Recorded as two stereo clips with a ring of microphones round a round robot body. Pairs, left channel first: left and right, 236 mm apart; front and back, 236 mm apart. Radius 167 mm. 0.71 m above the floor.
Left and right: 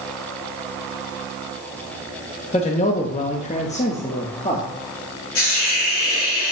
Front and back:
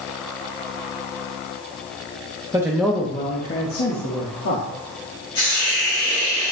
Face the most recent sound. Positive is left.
turn(degrees=75)